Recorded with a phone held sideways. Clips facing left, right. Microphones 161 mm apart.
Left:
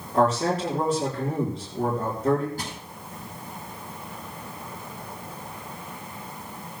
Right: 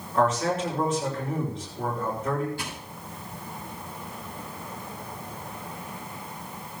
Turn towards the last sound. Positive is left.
turn(degrees=40)  # may be behind; listen again after turning